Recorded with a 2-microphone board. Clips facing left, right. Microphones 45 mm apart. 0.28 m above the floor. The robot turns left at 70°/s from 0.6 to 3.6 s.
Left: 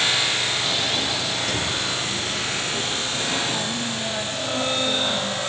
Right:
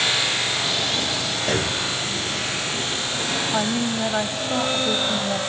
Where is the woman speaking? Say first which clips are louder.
Right 4 dB; 40° right (ahead or behind), 1.2 m.